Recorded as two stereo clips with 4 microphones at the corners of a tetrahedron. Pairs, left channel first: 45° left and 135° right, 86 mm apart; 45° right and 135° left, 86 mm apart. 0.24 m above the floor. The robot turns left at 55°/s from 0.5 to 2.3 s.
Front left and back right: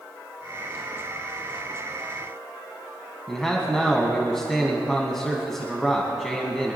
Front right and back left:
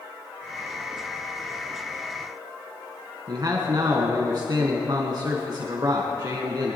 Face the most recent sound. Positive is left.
turn(degrees=130)